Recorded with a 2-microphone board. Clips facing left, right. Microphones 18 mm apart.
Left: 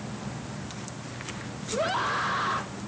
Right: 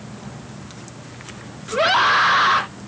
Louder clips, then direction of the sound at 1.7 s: Right 11 dB; 60° right (ahead or behind).